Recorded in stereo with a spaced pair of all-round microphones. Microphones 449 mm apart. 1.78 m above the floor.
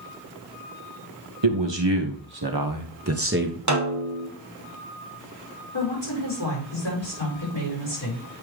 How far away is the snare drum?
About 1.2 m.